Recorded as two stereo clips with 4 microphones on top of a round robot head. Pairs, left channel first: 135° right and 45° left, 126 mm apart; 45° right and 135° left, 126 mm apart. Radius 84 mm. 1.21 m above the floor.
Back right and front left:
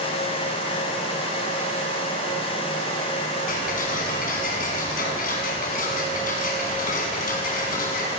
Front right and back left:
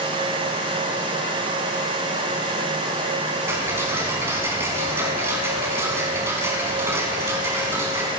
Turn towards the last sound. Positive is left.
turn(degrees=-155)